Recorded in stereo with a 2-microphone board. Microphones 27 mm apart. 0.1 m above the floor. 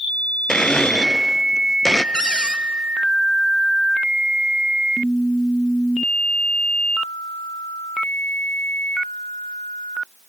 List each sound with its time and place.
0.5 s a blender: 25° left (ahead or behind), 0.6 m
2.1 s a cupboard door: 30° left (ahead or behind), 1.1 m